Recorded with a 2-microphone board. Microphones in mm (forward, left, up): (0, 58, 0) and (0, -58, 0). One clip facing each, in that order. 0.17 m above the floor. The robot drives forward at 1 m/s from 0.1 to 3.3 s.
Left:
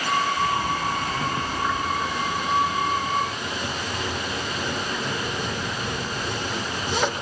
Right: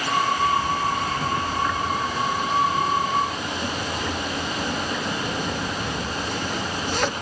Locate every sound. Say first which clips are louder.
0.4 s a zipper: right 2 dB; 15° left (ahead or behind), 0.9 m; by 7.2 s 5° left (ahead or behind), 3 m